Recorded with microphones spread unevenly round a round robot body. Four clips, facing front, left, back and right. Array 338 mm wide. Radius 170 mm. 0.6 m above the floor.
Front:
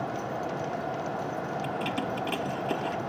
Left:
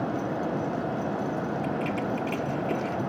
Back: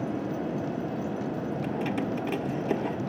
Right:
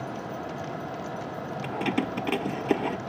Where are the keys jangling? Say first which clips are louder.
Even, back 3 dB; 80° right.